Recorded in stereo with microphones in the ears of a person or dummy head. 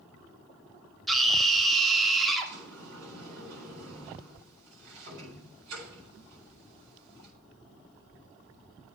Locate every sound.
1.1 s a scream: centre (ahead or behind), 2 m
2.5 s a sliding door: 70° right (ahead or behind), 9 m